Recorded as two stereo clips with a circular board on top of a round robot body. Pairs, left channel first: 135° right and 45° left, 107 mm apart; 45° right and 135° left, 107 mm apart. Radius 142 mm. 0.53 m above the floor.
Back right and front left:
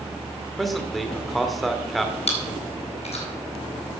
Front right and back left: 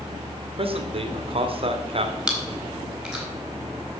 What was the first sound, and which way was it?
A man speaking, 135° left.